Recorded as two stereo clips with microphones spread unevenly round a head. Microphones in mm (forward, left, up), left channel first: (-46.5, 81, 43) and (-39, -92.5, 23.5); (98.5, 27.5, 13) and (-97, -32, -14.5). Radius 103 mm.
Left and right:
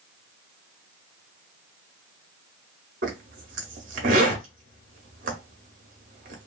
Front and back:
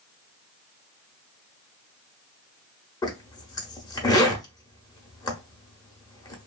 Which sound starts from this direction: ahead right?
A zipper, at 3.0 s.